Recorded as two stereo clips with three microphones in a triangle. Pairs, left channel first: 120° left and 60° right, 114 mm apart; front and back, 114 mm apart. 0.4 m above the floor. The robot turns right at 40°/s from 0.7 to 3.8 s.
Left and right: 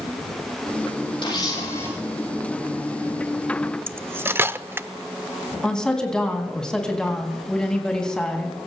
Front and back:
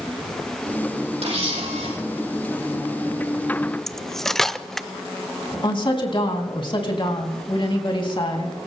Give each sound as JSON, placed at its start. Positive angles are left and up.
{"t": 1.2, "sound": "a camera shutter", "azimuth_deg": 160, "distance_m": 8.0}
{"t": 3.9, "sound": "cutlery clinking", "azimuth_deg": -80, "distance_m": 0.5}
{"t": 5.6, "sound": "a woman speaking", "azimuth_deg": 35, "distance_m": 3.5}